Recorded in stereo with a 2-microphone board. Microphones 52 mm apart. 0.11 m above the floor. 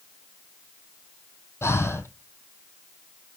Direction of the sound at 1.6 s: 55° left (ahead or behind).